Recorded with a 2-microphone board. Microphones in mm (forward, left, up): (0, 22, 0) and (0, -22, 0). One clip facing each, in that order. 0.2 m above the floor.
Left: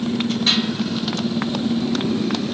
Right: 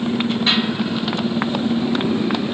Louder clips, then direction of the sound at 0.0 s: Right 2 dB; 15° right (ahead or behind).